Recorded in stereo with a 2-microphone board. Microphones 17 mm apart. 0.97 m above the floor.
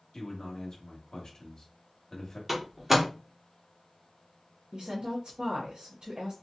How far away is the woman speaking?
About 0.9 m.